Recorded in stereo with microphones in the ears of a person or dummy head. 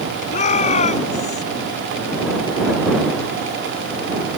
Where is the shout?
40° left (ahead or behind); by 1.4 s 35° left (ahead or behind).